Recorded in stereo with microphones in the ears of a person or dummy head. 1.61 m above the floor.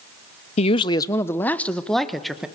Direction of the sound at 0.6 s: 35° left (ahead or behind).